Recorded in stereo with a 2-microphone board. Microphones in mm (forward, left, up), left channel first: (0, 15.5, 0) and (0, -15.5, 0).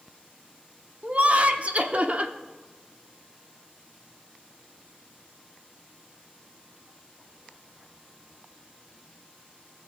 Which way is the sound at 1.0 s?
50° right (ahead or behind).